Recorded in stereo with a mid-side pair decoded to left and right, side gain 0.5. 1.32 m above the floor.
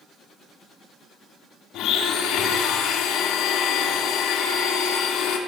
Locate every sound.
1.7 s a blender: 70° left, 3 m